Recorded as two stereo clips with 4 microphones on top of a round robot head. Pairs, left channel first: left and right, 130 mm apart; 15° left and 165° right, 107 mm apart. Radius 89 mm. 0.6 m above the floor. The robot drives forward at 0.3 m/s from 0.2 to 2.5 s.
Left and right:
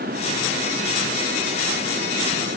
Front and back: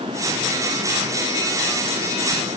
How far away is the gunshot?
No gunshot in this recording.